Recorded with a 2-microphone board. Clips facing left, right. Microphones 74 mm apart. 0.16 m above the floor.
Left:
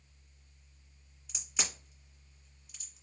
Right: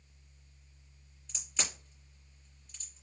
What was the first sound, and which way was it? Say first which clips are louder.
A crack: even; 10° left (ahead or behind).